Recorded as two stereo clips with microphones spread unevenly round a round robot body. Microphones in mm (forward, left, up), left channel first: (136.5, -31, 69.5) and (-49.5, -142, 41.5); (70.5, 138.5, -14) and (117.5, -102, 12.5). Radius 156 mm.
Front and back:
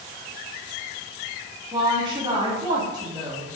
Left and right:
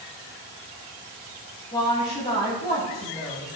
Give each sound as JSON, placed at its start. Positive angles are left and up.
{"t": 1.7, "sound": "a woman speaking", "azimuth_deg": 155, "distance_m": 1.1}